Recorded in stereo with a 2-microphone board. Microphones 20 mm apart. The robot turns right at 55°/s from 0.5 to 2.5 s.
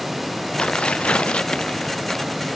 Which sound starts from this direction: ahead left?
Tearing paper, at 0.6 s.